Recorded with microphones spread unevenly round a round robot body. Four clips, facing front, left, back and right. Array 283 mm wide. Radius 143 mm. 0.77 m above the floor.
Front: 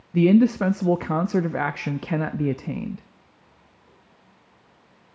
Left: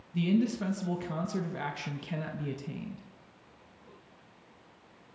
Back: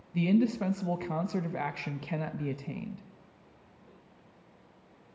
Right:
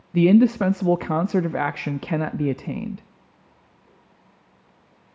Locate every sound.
0.1 s a man speaking: 45° right, 0.7 m